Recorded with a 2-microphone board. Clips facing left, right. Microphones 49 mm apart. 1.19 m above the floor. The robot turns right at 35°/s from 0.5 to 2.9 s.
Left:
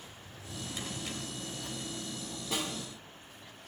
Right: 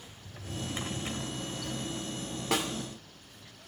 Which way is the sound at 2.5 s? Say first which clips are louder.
Right 5 dB; 75° right (ahead or behind).